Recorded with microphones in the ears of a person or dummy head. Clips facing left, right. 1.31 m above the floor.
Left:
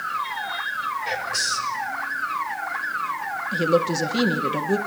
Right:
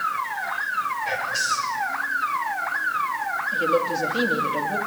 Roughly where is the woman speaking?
Left.